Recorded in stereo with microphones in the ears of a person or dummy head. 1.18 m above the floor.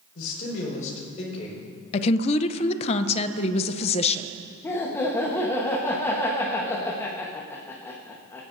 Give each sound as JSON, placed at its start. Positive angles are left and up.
{"t": 0.1, "sound": "a man speaking", "side_deg": 60, "distance_m": 4.0}
{"t": 1.9, "sound": "a woman speaking", "side_deg": 35, "distance_m": 0.6}
{"t": 4.6, "sound": "laughter", "side_deg": 15, "distance_m": 1.1}